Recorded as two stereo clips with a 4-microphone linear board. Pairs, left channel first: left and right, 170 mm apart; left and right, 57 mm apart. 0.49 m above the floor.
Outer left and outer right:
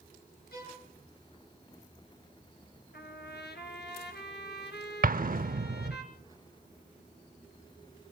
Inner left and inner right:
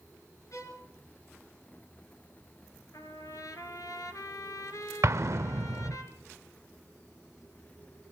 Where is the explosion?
60° right (ahead or behind), 0.6 m.